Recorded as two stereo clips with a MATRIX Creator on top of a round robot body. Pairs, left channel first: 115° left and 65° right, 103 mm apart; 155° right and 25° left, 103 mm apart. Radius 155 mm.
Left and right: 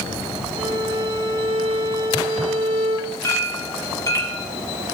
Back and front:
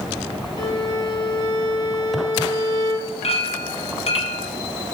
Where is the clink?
175° left, 1.7 m.